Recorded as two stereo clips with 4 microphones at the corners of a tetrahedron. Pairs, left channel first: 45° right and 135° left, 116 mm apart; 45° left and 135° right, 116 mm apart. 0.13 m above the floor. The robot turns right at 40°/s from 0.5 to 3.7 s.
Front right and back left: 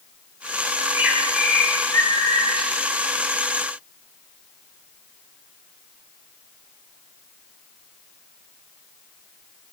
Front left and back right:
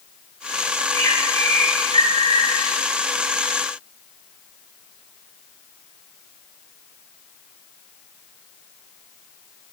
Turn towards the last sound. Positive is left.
turn(degrees=-40)